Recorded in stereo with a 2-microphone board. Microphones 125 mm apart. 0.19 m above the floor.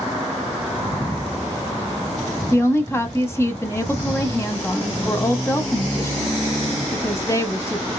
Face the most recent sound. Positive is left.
turn(degrees=20)  # may be behind; listen again after turning